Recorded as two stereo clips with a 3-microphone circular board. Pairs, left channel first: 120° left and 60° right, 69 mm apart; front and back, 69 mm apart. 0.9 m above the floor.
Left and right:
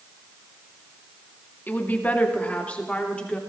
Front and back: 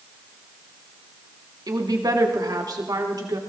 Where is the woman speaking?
Straight behind, 2 m; by 3.4 s 165° right, 3 m.